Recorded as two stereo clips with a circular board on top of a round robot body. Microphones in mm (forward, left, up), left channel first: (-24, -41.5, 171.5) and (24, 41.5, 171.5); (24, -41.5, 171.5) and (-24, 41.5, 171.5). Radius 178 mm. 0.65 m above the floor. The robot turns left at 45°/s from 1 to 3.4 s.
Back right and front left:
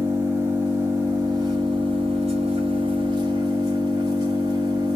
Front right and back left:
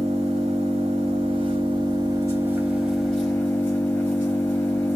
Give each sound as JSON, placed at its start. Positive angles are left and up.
{"t": 0.0, "sound": "an engine running", "azimuth_deg": 125, "distance_m": 3.0}